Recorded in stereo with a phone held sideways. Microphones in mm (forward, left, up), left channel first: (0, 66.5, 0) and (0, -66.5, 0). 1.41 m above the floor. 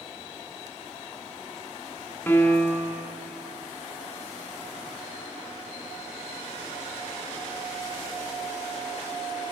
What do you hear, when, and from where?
2.3 s a piano: 15° left (ahead or behind), 1.1 m